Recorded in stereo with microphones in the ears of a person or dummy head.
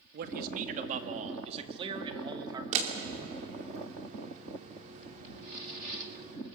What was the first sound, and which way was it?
A man speaking, 60° right (ahead or behind).